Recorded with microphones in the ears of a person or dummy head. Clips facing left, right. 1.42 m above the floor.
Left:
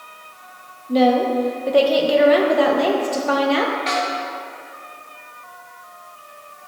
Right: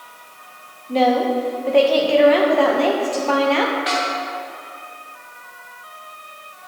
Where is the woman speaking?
15° left (ahead or behind), 0.7 m.